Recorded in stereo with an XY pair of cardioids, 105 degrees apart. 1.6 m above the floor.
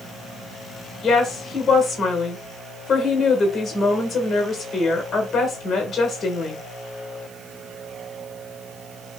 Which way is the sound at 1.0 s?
35° left.